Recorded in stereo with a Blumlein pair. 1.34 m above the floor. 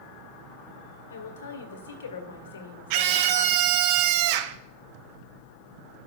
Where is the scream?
45° right, 0.7 m.